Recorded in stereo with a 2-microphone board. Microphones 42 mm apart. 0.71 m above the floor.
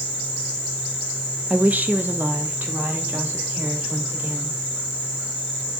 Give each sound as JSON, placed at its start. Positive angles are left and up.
{"t": 1.5, "sound": "a woman speaking", "side_deg": -35, "distance_m": 0.6}